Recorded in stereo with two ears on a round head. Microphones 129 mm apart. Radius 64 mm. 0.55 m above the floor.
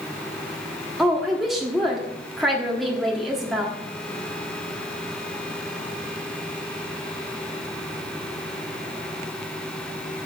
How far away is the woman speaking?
About 1.2 m.